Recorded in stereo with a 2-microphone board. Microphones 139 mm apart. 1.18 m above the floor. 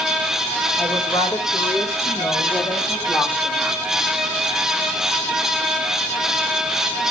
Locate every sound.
0.8 s a woman speaking: 30° left (ahead or behind), 4 m; by 3.8 s 5° left (ahead or behind), 2.5 m